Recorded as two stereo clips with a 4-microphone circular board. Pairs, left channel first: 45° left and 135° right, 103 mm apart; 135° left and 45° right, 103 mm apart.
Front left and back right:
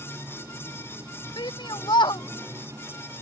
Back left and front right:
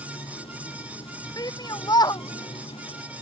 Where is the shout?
90° left.